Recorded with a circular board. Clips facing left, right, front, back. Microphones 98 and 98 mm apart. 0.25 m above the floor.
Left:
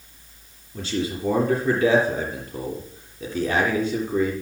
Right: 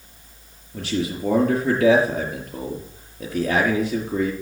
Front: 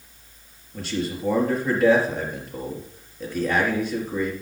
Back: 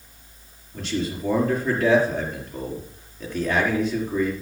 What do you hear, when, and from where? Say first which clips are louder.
0.7 s a man speaking: right 1 dB, back 1 dB; 85° right, 5 m